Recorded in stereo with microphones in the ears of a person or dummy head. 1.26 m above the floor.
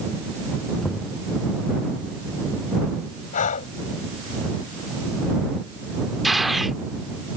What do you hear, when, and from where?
0.8 s knocking: centre (ahead or behind)
3.3 s breathing: 45° left (ahead or behind)
6.2 s a gunshot: centre (ahead or behind)